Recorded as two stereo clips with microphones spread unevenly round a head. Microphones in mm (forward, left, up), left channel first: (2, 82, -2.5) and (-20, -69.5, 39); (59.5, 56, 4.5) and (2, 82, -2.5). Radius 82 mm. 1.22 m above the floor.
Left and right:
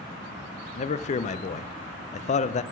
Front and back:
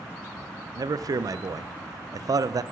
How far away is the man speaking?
About 0.5 m.